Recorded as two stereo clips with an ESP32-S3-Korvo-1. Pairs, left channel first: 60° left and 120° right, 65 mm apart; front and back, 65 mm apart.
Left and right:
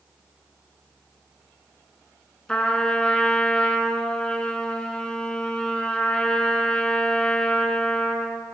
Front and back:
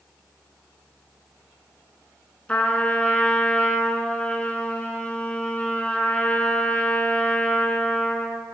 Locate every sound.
2.5 s a trumpet: 15° left, 0.6 m